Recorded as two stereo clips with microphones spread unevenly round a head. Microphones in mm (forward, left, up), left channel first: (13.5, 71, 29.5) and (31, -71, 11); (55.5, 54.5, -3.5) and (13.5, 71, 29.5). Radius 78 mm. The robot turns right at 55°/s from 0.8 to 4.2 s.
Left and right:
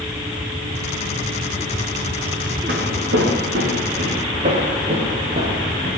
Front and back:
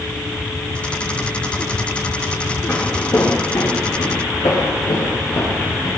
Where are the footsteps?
115° right, 4.5 m; by 5.9 s 40° right, 8 m.